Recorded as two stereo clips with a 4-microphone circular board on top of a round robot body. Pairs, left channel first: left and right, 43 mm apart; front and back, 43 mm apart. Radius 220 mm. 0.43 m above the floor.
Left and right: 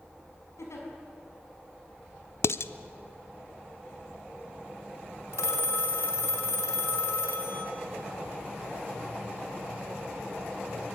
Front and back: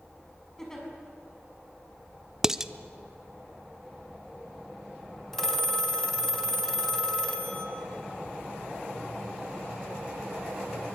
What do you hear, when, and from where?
0.6 s a giggle: 80° left, 6.5 m
2.4 s dishes clattering: 105° left, 0.9 m
5.3 s a phone ringing: 85° left, 3.5 m